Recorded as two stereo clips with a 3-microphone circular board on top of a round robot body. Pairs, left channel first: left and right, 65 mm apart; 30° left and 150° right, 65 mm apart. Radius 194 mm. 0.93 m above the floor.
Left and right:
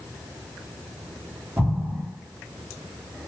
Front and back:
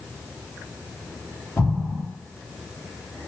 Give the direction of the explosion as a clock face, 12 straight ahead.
1 o'clock.